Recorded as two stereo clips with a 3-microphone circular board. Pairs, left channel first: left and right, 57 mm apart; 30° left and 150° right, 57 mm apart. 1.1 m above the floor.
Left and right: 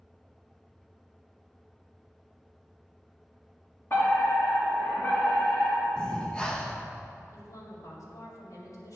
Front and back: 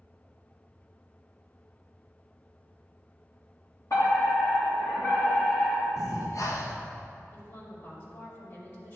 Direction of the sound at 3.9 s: 45° left.